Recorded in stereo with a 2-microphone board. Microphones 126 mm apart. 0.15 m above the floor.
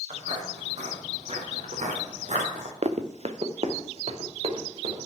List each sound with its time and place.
0.1 s footsteps: 65° right (ahead or behind), 4 m; by 2.7 s 70° right (ahead or behind), 3 m
2.8 s running footsteps: 60° right (ahead or behind), 0.9 m; by 5.1 s 55° right (ahead or behind), 2.5 m